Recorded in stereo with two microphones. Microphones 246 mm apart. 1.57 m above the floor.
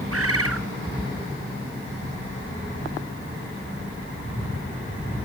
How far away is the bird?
About 0.8 m.